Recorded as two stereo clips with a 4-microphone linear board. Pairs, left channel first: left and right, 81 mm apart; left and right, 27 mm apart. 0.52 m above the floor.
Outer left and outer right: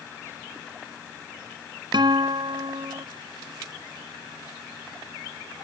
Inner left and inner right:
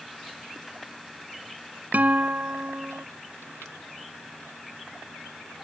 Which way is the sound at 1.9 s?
80° right.